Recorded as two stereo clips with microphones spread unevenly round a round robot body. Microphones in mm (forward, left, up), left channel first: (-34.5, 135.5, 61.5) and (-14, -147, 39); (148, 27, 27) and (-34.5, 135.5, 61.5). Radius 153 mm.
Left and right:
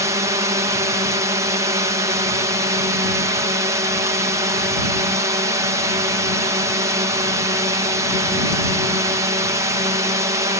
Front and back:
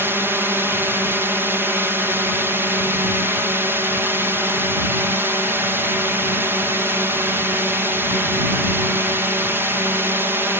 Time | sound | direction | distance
0.0 | a drone | 125° right | ?